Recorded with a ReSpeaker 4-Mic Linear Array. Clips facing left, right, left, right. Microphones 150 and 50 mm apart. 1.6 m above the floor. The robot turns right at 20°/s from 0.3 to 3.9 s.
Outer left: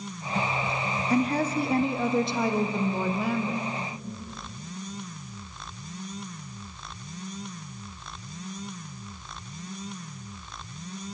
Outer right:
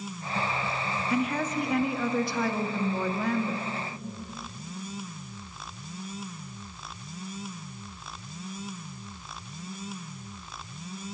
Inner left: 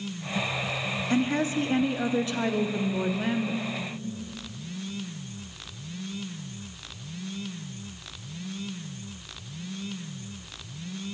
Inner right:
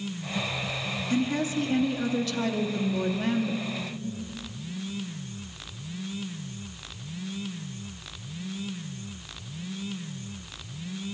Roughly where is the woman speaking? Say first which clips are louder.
Outer left 4 dB, inner left 1 dB; behind left.